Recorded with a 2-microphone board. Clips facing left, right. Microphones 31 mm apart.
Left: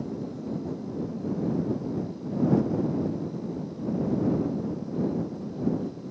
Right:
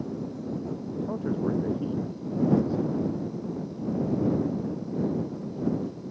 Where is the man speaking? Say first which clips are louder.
Right 3 dB; 65° right (ahead or behind).